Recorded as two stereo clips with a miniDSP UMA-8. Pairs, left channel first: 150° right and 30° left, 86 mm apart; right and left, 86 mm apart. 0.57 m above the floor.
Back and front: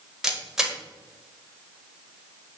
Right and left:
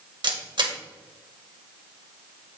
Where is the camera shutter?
115° left, 1.3 m.